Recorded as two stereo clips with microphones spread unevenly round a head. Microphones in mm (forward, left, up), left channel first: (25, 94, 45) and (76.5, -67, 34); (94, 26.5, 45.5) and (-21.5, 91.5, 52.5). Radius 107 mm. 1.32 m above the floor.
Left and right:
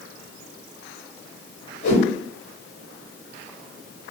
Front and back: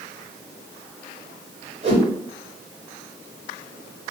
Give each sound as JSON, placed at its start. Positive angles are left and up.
{"t": 1.8, "sound": "a whoosh", "azimuth_deg": 120, "distance_m": 1.6}